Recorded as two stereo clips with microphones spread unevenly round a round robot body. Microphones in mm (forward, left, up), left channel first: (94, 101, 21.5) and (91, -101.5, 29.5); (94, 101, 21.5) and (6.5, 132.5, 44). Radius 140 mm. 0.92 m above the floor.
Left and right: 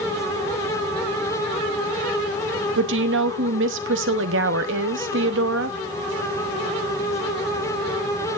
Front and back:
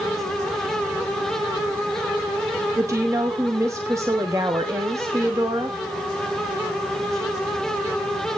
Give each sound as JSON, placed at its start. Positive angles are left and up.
{"t": 2.8, "sound": "a woman speaking", "azimuth_deg": -125, "distance_m": 1.0}